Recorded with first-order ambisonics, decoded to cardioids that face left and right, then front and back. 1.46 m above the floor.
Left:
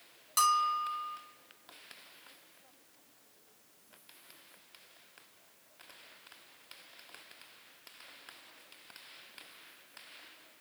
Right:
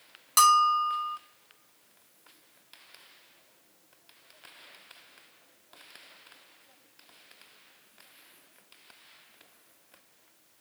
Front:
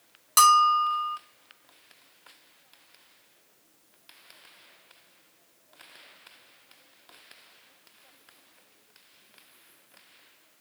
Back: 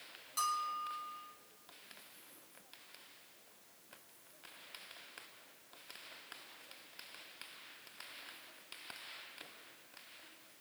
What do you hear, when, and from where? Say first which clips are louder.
0.4 s a bell: right 8 dB, front 19 dB; 25° right, 0.6 m